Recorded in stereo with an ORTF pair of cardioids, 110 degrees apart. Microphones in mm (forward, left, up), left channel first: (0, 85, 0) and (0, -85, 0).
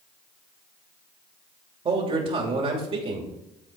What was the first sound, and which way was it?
A man speaking, 35° right.